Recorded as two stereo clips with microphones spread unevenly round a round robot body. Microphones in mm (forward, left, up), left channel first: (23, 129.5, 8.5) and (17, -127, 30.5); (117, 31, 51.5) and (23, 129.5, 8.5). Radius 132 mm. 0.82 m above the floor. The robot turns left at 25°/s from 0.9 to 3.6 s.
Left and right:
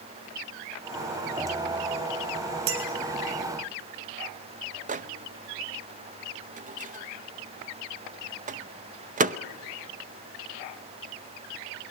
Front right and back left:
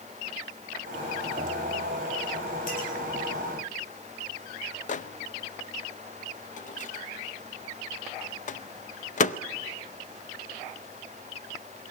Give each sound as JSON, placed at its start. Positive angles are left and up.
{"t": 2.7, "sound": "a clink", "azimuth_deg": -105, "distance_m": 4.0}
{"t": 4.9, "sound": "a microwave", "azimuth_deg": -45, "distance_m": 0.7}